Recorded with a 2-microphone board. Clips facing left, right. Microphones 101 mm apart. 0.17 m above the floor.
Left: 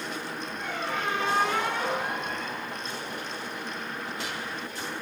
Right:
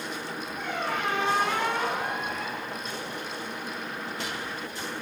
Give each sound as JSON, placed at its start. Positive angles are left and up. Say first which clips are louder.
{"t": 0.6, "sound": "a squeak", "louder": "right 2 dB", "side_deg": -60, "distance_m": 6.5}